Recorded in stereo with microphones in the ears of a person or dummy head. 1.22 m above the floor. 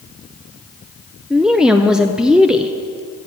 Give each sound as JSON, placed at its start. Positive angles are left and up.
{"t": 1.3, "sound": "a woman speaking", "side_deg": -5, "distance_m": 0.5}